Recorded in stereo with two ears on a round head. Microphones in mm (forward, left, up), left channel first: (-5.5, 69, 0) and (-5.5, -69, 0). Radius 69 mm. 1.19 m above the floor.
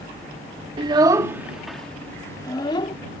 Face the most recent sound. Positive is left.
turn(degrees=35)  # may be behind; listen again after turning